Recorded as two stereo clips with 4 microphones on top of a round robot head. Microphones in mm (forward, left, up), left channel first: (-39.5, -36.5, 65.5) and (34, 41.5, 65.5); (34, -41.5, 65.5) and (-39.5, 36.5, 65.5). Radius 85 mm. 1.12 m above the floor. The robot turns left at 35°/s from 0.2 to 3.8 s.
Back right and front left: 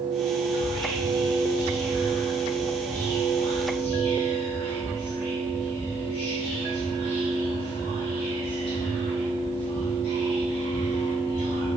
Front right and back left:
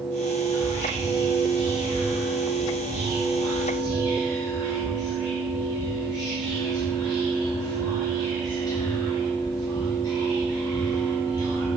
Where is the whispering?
15° left, 1.6 m; by 11.7 s 100° right, 1.6 m.